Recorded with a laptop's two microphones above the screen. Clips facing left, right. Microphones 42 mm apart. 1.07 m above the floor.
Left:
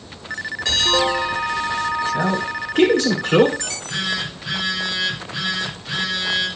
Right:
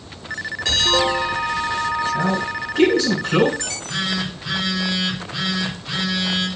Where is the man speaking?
60° left (ahead or behind), 2.5 m.